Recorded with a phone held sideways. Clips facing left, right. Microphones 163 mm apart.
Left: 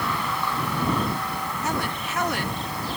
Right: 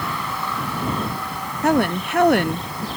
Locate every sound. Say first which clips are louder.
1.6 s a woman speaking: right 13 dB; 60° right (ahead or behind)